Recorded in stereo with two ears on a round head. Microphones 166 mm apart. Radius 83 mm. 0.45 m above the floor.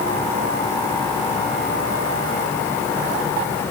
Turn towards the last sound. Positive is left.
No sound to turn to.